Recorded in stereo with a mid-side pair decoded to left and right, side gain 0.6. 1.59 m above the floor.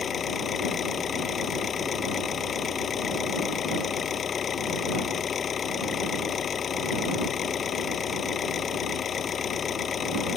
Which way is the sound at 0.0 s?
35° left.